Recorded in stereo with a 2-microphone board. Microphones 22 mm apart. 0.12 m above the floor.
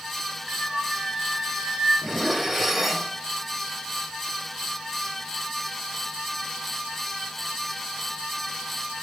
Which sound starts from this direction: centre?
Dishes clattering, at 2.0 s.